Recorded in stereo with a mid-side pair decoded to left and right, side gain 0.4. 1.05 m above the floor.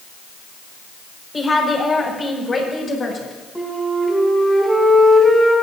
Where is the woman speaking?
30° left, 5.5 m; by 3.4 s 45° left, 6.5 m.